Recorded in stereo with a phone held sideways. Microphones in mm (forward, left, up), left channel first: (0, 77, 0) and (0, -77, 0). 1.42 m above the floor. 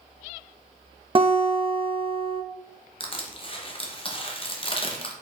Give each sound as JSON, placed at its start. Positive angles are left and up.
{"t": 1.1, "sound": "a guitar", "side_deg": -35, "distance_m": 0.8}
{"t": 3.0, "sound": "crushing", "side_deg": 35, "distance_m": 0.7}